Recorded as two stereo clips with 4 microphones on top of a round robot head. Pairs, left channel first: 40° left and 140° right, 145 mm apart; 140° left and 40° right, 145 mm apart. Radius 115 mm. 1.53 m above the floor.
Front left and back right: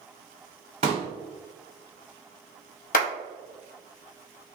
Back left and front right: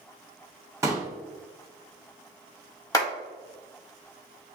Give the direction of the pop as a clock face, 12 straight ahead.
4 o'clock.